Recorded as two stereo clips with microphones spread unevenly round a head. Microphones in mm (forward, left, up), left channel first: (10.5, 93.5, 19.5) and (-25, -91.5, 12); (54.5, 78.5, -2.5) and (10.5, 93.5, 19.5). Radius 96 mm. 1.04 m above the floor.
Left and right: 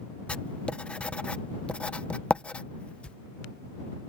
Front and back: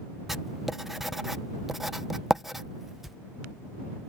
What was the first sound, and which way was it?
Writing, straight ahead.